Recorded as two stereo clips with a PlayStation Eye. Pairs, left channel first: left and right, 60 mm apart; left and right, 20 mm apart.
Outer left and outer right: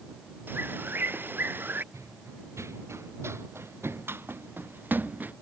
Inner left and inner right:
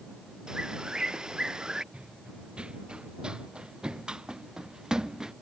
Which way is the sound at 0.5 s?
35° right (ahead or behind).